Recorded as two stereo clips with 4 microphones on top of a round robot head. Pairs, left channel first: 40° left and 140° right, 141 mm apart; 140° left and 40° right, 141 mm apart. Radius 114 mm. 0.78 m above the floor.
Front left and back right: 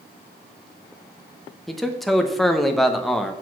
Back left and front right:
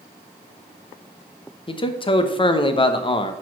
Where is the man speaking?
130° left, 0.9 m.